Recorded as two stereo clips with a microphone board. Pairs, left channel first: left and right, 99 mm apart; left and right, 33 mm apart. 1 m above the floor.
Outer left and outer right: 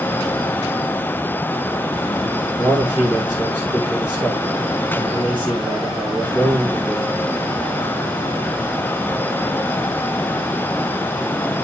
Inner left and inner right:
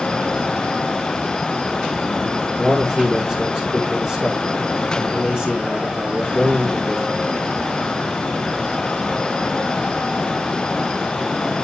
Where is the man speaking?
15° right (ahead or behind), 3 m.